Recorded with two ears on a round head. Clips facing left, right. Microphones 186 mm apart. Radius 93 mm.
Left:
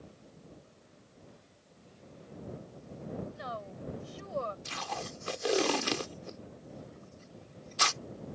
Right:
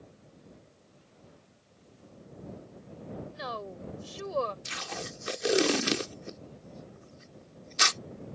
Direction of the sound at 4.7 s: 25° right (ahead or behind).